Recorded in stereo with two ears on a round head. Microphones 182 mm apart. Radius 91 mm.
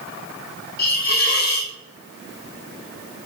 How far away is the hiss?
About 0.8 m.